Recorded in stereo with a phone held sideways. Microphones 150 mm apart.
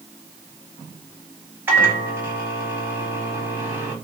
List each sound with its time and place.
1.7 s a microwave: 15° right (ahead or behind), 0.8 m